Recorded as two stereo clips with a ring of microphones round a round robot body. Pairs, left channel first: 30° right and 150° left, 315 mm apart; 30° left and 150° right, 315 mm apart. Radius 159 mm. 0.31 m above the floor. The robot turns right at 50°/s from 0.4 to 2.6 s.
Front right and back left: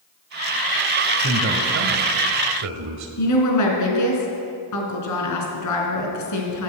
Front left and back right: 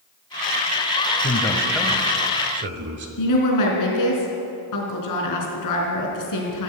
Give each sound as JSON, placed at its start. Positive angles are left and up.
{"t": 1.2, "sound": "a man speaking", "azimuth_deg": 95, "distance_m": 1.4}
{"t": 3.2, "sound": "a woman speaking", "azimuth_deg": 5, "distance_m": 3.5}